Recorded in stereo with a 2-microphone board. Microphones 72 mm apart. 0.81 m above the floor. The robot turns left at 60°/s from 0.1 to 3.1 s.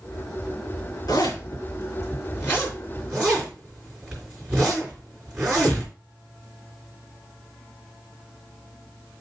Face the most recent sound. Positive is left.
turn(degrees=-15)  # may be behind; listen again after turning